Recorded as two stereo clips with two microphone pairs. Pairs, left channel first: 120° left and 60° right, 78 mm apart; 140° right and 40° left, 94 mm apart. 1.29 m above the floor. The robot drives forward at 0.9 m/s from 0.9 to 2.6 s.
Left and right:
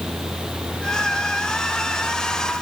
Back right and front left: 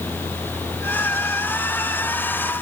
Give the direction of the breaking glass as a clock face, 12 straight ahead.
No breaking glass in this recording.